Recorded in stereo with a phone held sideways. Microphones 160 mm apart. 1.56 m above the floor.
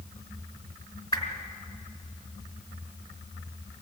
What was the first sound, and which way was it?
A whoosh, 35° left (ahead or behind).